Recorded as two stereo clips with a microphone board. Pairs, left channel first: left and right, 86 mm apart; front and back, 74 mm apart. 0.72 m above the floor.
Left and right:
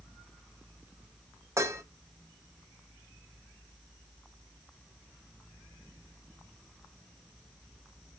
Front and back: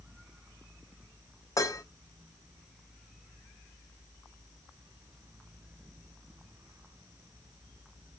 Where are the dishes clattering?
40° right, 0.8 m.